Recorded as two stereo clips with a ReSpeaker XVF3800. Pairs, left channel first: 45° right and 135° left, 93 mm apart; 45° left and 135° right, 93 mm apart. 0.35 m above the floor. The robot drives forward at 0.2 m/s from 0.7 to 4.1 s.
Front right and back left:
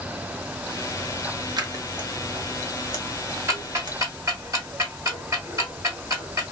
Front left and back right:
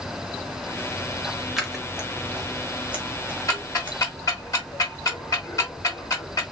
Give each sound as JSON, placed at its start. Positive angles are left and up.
{"t": 1.6, "sound": "scissors", "azimuth_deg": 140, "distance_m": 0.8}
{"t": 3.5, "sound": "ticking", "azimuth_deg": 85, "distance_m": 1.5}